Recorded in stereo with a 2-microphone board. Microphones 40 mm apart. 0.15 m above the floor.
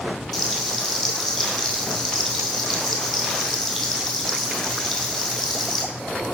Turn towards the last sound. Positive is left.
turn(degrees=-5)  # may be behind; listen again after turning